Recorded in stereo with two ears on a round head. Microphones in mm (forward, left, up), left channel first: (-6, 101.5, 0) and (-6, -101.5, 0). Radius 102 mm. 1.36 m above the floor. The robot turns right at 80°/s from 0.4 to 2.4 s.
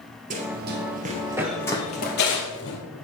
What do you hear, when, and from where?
0.3 s running footsteps: 35° right (ahead or behind), 1.8 m; by 2.8 s 60° left (ahead or behind), 2.5 m